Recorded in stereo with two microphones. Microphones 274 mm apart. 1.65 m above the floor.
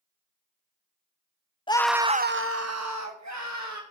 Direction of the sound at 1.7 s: 20° left (ahead or behind).